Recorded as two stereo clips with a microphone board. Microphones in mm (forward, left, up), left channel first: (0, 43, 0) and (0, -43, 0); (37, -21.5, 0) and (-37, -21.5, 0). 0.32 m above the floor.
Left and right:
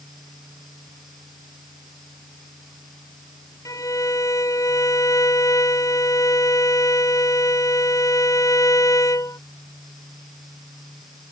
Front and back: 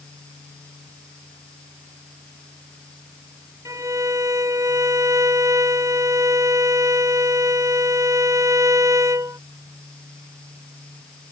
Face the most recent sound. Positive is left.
turn(degrees=140)